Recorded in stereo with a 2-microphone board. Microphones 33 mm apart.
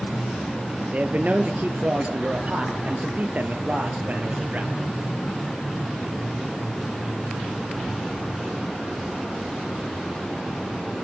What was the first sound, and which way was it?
A man speaking, 45° right (ahead or behind).